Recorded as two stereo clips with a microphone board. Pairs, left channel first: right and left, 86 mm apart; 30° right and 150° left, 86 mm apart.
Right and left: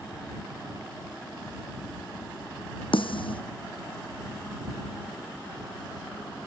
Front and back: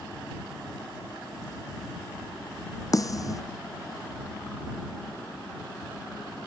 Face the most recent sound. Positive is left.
turn(degrees=-80)